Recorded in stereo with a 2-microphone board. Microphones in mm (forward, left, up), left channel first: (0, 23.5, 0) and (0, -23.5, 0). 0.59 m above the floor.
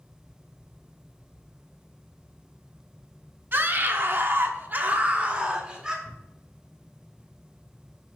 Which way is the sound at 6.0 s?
5° left (ahead or behind).